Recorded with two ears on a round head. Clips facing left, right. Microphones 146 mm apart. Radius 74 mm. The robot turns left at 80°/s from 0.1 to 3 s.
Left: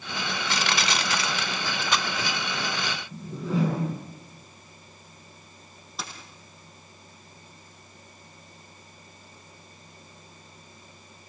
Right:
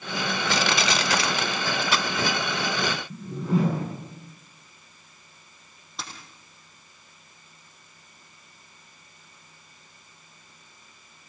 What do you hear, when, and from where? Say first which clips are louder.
0.5 s crushing: right 3 dB; 60° right (ahead or behind), 1.3 m; by 2.8 s 65° left (ahead or behind), 1.3 m
3.1 s a whoosh: right 1 dB; 45° right (ahead or behind), 8.5 m
6.0 s a dropped coin: left 1 dB; centre (ahead or behind), 5.5 m